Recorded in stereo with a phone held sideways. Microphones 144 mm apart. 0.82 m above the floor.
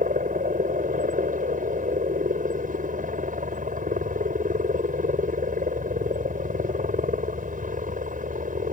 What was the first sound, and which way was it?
A helicopter, 65° right (ahead or behind).